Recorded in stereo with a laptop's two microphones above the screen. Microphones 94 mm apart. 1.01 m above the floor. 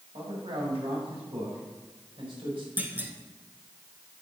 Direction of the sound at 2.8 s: 20° right (ahead or behind).